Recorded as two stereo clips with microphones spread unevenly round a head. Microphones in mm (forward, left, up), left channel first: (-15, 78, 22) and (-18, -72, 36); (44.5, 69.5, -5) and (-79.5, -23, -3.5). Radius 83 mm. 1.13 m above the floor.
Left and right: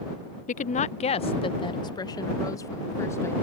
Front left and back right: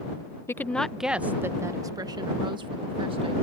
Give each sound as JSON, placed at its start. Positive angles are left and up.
{"t": 0.5, "sound": "a woman speaking", "azimuth_deg": 110}